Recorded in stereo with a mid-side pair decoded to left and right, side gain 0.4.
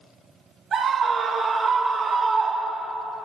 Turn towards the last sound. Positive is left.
turn(degrees=-45)